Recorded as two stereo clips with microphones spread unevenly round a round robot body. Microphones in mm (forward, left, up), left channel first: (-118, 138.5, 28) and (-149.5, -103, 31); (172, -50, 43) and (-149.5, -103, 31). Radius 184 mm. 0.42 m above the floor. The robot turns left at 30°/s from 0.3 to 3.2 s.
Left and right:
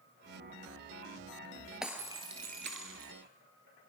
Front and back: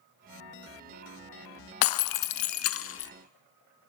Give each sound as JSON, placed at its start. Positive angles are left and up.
{"t": 1.8, "sound": "breaking glass", "azimuth_deg": -10, "distance_m": 0.7}